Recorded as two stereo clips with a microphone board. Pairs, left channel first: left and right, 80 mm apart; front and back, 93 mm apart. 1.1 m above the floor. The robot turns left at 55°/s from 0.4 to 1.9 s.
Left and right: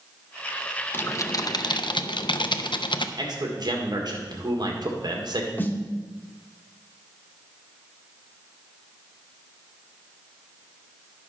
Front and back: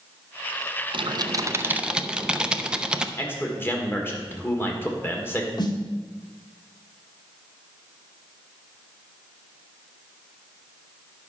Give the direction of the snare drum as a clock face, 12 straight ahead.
11 o'clock.